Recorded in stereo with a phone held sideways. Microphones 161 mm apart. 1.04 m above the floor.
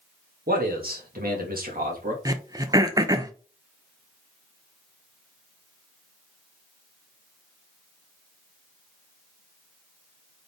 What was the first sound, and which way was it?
A man speaking, 70° right (ahead or behind).